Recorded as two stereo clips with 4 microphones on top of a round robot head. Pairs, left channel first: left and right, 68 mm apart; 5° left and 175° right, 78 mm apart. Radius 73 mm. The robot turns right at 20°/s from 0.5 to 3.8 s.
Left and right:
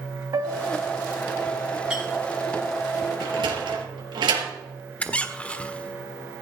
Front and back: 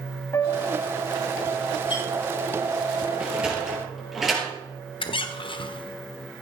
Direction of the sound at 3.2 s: 100° right.